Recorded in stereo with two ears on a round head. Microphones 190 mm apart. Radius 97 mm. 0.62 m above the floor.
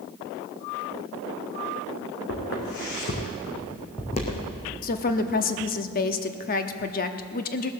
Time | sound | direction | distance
2.3 | footsteps | 55° left (ahead or behind) | 3 m
4.8 | a woman speaking | 40° left (ahead or behind) | 0.8 m